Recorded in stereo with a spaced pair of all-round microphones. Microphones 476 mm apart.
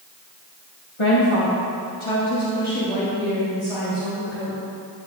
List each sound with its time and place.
1.0 s a woman speaking: 85° left, 1.6 m; by 4.6 s 90° left, 4.5 m